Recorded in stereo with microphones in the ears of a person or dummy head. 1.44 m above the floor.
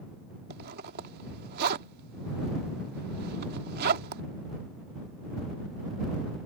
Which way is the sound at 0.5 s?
55° right (ahead or behind).